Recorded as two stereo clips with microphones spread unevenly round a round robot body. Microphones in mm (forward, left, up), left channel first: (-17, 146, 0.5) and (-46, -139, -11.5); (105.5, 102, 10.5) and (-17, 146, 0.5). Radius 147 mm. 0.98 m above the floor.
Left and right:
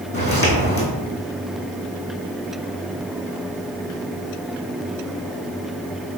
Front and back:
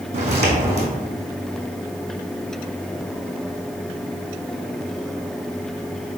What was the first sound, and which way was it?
Footsteps, 145° left.